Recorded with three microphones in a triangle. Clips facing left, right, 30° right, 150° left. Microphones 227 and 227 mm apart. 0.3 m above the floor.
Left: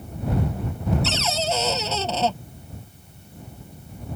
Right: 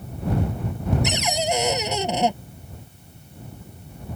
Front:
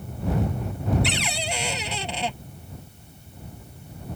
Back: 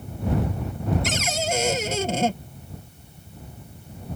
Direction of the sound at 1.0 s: 165° right.